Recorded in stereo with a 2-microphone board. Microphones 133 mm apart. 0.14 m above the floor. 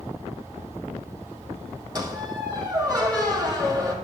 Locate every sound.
1.9 s a squeak: 30° right (ahead or behind), 3 m